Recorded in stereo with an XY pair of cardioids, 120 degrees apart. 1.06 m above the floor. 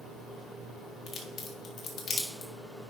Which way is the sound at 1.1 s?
50° left.